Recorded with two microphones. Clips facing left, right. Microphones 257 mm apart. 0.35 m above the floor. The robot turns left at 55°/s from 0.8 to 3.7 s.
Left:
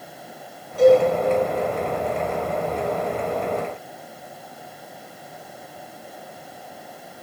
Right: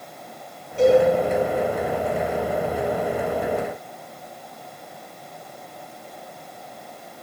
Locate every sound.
0.8 s a cowbell: 25° right (ahead or behind), 3.5 m; by 1.0 s 40° right (ahead or behind), 3.5 m